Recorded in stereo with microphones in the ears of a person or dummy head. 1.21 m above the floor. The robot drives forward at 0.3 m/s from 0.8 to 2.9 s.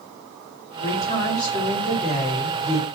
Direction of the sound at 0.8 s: 40° left (ahead or behind).